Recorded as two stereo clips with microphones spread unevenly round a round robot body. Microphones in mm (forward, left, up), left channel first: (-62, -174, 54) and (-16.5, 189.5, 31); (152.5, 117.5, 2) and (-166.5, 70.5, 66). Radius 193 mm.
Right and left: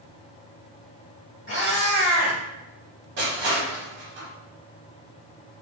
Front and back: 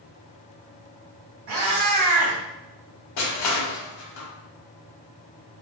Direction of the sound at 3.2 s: 20° left.